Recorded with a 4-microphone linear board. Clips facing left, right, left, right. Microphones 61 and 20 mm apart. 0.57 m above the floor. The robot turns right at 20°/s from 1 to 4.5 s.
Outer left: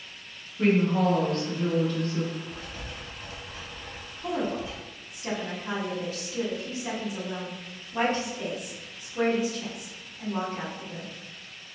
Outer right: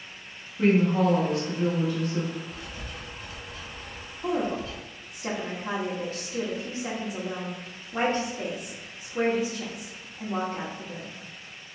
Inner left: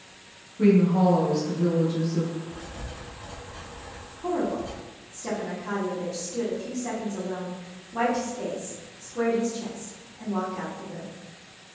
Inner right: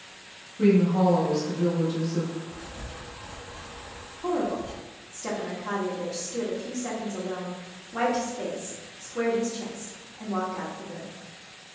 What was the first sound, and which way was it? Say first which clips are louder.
A woman speaking: outer right 1 dB, inner left 1 dB; 5° right (ahead or behind).